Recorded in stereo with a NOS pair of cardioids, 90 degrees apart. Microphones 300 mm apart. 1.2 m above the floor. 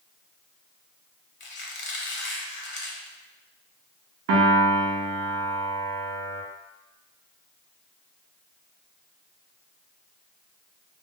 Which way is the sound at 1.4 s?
40° left.